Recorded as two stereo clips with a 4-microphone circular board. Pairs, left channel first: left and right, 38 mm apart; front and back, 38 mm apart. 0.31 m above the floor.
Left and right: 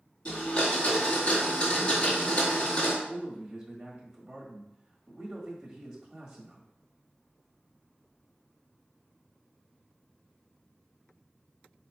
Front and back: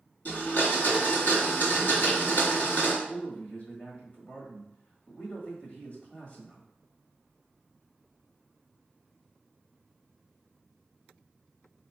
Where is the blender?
35° left, 1.8 m.